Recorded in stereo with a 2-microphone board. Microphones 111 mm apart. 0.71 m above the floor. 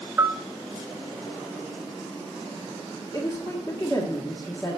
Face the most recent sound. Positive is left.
turn(degrees=30)  # may be behind; listen again after turning